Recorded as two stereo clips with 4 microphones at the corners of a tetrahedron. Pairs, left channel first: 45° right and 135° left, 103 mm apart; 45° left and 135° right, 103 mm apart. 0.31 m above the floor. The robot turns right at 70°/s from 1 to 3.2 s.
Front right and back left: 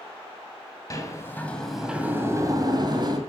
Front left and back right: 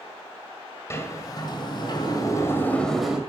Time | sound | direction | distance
0.9 | a sliding door | 5° right | 2 m